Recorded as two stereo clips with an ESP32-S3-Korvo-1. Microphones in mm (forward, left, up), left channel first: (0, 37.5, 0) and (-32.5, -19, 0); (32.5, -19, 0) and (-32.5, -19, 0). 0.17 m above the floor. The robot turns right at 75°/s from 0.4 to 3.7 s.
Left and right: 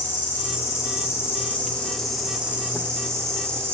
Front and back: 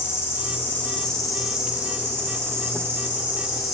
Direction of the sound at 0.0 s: 20° left.